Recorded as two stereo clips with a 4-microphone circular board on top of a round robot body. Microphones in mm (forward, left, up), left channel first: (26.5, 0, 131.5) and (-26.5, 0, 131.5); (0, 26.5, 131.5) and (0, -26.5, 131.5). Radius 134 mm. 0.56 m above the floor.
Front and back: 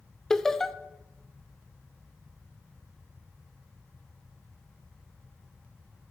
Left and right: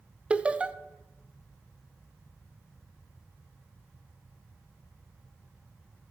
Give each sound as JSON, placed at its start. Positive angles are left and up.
{"t": 0.3, "sound": "laughter", "azimuth_deg": -70, "distance_m": 0.7}